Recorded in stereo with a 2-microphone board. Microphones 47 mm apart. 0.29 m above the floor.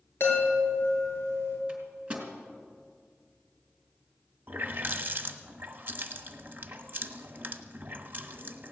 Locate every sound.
0.2 s a chime: 55° left (ahead or behind), 5 m
1.7 s a microwave: 25° right (ahead or behind), 3 m
4.5 s a running tap: 45° right (ahead or behind), 1.2 m